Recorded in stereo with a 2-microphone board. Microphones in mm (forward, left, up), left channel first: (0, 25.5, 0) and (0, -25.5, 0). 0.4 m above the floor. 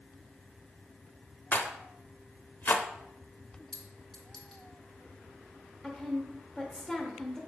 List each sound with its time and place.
1.5 s a rattle: 45° left (ahead or behind), 0.6 m
3.7 s a clink: 15° left (ahead or behind), 2 m
5.8 s a woman speaking: 10° left (ahead or behind), 0.8 m